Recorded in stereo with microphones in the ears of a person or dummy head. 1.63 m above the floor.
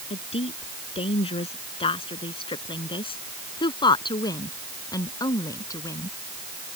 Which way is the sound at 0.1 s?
35° left (ahead or behind).